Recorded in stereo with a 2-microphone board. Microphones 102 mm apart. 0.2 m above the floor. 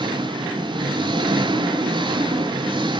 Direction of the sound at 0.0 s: 50° right (ahead or behind).